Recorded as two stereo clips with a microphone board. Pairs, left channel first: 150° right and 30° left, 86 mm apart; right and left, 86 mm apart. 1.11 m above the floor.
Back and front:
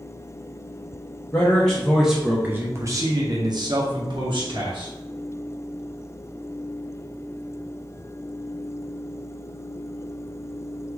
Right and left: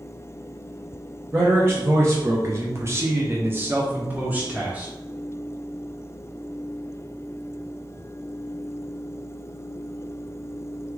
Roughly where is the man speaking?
Behind left.